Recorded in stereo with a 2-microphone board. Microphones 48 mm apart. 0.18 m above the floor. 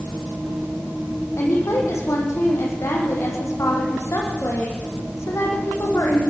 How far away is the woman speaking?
About 9.5 m.